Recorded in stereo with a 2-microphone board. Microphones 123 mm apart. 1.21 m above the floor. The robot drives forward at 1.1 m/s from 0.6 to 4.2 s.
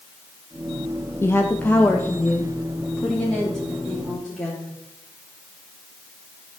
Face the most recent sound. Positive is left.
turn(degrees=5)  # may be behind; listen again after turning